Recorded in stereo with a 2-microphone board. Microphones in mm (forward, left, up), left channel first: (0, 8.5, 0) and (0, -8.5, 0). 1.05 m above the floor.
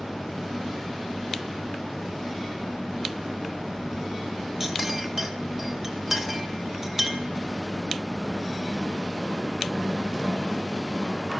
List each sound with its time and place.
4.6 s a clink: 15° right (ahead or behind), 2.5 m